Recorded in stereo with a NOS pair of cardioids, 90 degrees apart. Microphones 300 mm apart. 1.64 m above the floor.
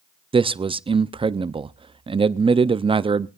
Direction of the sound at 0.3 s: 20° right.